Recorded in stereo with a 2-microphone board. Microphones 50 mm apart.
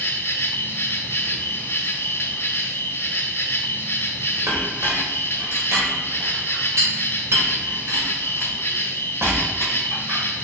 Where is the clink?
70° right (ahead or behind), 3.5 m.